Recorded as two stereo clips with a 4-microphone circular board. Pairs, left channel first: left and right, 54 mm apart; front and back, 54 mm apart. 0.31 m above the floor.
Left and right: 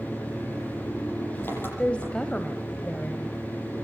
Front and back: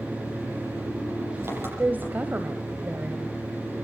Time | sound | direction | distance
0.0 | an engine running | 140° left | 8.5 m
1.8 | a woman speaking | 145° left | 1.5 m